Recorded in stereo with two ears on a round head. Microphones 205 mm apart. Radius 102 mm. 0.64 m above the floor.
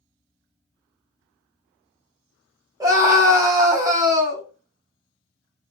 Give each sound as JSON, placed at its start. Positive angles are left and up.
{"t": 2.8, "sound": "a scream", "side_deg": -15, "distance_m": 1.0}